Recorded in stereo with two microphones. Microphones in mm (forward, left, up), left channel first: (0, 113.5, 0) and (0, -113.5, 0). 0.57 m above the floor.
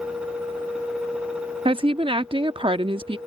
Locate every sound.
1.6 s a woman speaking: 25° right (ahead or behind)